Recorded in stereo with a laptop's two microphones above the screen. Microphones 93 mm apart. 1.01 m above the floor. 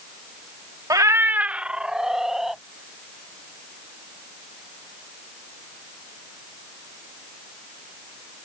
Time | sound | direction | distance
0.9 | a cat meowing | 45° right (ahead or behind) | ?